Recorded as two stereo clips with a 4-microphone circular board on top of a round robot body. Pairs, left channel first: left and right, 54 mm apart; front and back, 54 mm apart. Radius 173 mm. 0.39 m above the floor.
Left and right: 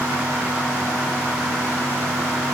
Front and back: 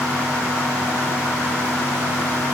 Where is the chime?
No chime in this recording.